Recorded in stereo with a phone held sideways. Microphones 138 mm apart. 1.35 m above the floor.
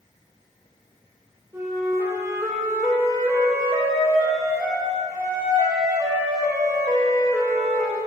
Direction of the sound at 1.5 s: 20° right (ahead or behind).